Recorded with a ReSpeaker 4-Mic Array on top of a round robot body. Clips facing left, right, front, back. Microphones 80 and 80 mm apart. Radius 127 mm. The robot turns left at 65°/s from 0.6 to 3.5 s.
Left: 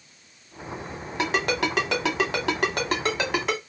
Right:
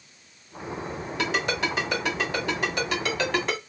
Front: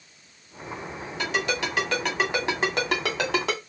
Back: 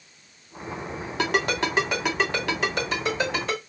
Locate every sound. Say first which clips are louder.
1.2 s a ringtone: left 3 dB, back 3 dB; 150° left, 1.9 m; by 3.6 s straight ahead, 1.9 m